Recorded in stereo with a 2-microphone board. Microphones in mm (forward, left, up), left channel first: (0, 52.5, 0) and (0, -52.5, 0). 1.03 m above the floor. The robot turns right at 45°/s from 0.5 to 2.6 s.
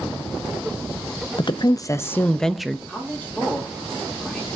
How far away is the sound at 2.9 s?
About 3 m.